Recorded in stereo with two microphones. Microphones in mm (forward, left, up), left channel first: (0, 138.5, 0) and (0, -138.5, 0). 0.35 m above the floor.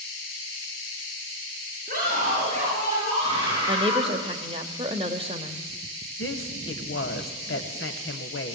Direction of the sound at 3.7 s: 20° right (ahead or behind).